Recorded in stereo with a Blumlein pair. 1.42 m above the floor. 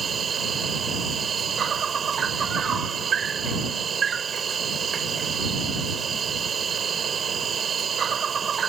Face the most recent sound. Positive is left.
turn(degrees=-20)